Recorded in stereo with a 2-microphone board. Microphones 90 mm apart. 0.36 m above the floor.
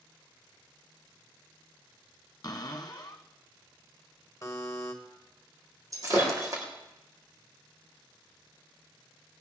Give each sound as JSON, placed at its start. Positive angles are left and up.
{"t": 2.4, "sound": "a cupboard door", "side_deg": 45, "distance_m": 1.4}
{"t": 4.4, "sound": "a buzzer", "side_deg": 35, "distance_m": 1.5}
{"t": 5.9, "sound": "breaking glass", "side_deg": -40, "distance_m": 3.5}